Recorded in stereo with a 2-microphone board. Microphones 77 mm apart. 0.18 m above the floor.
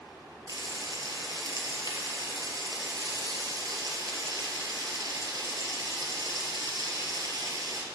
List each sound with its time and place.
0.5 s frying: 55° right (ahead or behind), 1.3 m